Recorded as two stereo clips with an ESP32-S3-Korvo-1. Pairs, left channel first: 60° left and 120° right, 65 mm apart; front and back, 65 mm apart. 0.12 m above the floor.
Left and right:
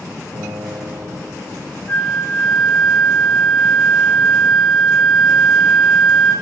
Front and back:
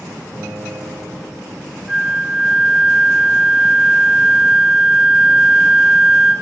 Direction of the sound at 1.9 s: 110° left.